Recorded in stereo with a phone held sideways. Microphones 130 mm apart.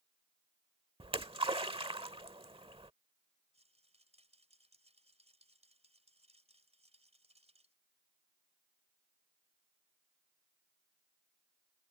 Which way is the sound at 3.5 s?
55° right (ahead or behind).